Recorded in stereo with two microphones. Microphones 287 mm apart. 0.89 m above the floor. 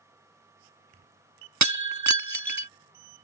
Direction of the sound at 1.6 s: 70° right (ahead or behind).